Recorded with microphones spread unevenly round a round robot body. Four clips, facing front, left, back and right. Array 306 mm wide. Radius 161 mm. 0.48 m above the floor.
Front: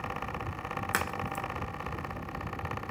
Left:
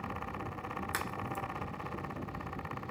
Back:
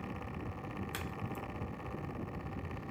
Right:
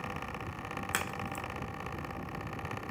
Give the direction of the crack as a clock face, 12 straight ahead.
1 o'clock.